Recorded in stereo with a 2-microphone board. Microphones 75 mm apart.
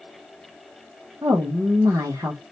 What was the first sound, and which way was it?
A woman speaking, 45° right (ahead or behind).